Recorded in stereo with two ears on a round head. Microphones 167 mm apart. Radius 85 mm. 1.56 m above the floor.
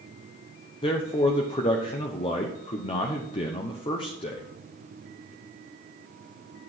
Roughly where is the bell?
I don't hear a bell.